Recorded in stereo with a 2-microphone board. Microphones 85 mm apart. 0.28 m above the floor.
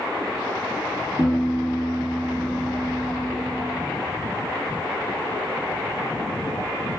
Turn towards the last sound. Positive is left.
turn(degrees=-20)  # may be behind; listen again after turning